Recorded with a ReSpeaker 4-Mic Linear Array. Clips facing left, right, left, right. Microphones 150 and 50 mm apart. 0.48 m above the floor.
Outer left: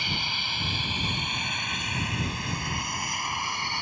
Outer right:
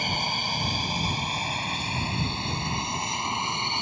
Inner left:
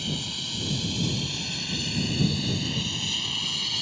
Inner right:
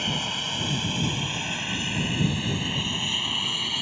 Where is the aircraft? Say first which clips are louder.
Outer right 5 dB, inner right 4 dB; 45° right (ahead or behind); by 3.8 s 20° right (ahead or behind).